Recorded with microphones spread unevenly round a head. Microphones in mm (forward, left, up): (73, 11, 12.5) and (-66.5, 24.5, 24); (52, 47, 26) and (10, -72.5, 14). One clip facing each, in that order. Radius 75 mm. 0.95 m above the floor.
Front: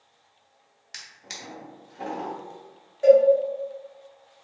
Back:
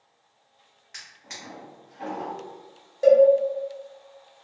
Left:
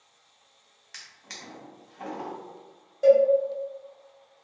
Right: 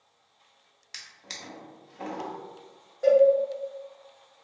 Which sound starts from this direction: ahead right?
A drawer, at 0.9 s.